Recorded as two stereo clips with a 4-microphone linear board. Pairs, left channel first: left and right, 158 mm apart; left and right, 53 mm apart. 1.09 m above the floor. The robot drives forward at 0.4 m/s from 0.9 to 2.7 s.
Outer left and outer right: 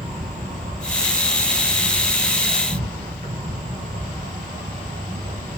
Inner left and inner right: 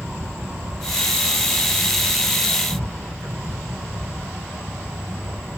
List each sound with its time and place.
0.0 s an insect: 45° right (ahead or behind), 1.9 m; by 5.6 s 55° right (ahead or behind), 1.7 m